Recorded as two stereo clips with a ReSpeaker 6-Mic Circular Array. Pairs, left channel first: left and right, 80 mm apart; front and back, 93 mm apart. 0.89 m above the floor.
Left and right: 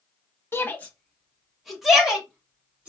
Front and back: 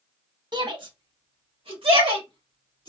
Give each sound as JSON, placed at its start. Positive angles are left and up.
{"t": 0.5, "sound": "a shout", "azimuth_deg": 150, "distance_m": 1.0}